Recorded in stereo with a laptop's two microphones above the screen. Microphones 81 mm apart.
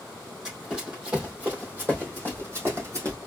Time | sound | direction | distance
0.5 | running footsteps | 10° right (ahead or behind) | 2.5 m